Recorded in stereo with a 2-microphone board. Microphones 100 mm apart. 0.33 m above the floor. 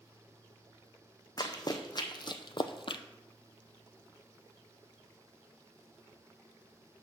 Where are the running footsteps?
40° left (ahead or behind), 1.1 m; by 3.0 s 60° left (ahead or behind), 0.5 m.